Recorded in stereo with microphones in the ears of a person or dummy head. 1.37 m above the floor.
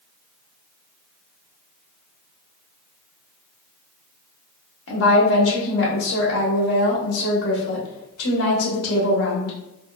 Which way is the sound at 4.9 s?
80° left.